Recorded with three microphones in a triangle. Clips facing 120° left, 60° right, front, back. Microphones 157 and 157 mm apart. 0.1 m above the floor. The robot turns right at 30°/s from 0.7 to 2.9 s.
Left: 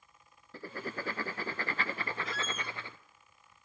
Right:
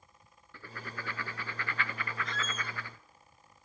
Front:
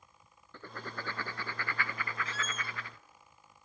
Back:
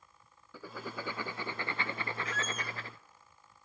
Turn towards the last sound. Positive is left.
turn(degrees=55)